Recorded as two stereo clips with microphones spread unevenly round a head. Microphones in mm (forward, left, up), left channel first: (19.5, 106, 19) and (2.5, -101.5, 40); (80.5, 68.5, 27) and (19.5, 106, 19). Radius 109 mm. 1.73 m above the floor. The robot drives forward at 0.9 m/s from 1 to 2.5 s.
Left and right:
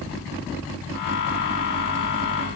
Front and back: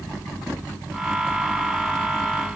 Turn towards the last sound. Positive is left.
No sound to turn to.